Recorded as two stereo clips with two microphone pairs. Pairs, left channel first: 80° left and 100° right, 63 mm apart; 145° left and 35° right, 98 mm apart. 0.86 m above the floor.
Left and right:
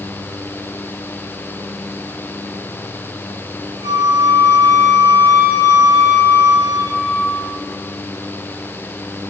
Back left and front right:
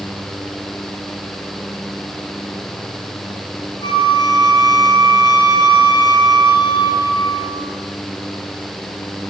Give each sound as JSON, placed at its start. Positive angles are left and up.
{"t": 3.8, "sound": "a flute", "azimuth_deg": -65, "distance_m": 3.0}